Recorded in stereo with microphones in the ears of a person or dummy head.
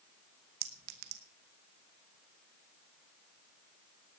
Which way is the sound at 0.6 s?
65° right (ahead or behind).